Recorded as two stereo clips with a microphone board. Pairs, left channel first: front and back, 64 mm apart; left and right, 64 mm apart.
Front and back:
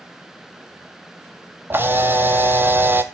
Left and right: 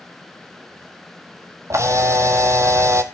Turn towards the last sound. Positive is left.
turn(degrees=-125)